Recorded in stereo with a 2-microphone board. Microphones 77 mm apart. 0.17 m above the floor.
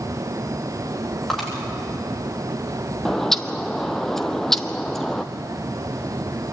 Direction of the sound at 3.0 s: 5° left (ahead or behind).